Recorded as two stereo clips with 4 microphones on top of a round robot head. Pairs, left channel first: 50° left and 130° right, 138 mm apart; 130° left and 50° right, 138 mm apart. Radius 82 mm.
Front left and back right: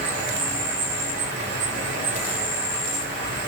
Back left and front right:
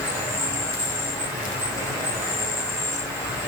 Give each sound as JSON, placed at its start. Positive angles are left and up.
{"t": 0.0, "sound": "an insect", "azimuth_deg": -160, "distance_m": 1.3}